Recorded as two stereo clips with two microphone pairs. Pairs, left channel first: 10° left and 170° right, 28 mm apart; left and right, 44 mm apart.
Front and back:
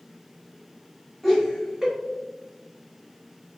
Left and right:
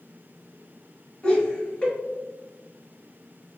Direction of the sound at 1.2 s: 110° left.